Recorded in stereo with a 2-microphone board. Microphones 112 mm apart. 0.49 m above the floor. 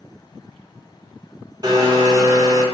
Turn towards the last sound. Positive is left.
turn(degrees=-40)  # may be behind; listen again after turning